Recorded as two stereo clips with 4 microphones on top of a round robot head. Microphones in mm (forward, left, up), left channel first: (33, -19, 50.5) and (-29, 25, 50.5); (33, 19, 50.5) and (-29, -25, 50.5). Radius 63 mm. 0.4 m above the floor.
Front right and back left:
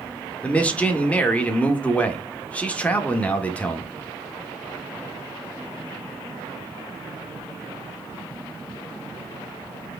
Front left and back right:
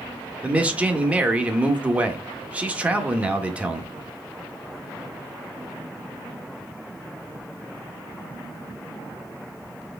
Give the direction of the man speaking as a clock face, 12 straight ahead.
3 o'clock.